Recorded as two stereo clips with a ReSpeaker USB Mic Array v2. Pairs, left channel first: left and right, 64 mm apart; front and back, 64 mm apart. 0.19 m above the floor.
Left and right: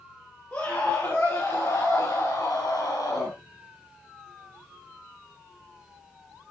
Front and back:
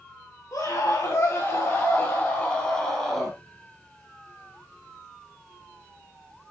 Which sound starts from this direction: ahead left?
A scream, at 0.5 s.